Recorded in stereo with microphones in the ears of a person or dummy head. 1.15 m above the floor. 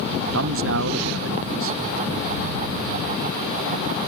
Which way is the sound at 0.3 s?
65° right (ahead or behind).